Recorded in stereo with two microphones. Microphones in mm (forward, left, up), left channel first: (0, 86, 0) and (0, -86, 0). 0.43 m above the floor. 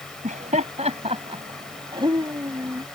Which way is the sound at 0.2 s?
50° right (ahead or behind).